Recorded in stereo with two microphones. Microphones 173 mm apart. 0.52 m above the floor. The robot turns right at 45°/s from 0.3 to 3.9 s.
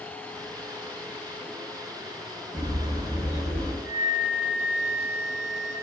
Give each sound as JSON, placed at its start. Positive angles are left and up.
{"t": 2.5, "sound": "a bird", "azimuth_deg": -40, "distance_m": 1.5}
{"t": 3.8, "sound": "a flute", "side_deg": 0, "distance_m": 1.3}